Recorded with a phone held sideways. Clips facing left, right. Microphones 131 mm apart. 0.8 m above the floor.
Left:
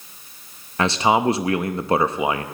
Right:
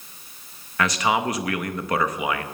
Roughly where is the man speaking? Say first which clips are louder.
Left 4 dB; left.